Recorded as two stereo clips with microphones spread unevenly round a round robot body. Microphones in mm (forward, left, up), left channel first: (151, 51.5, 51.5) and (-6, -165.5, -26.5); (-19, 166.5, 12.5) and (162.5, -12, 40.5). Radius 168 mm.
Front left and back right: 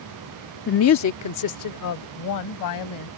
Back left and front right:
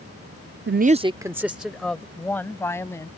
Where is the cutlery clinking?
No cutlery clinking in this recording.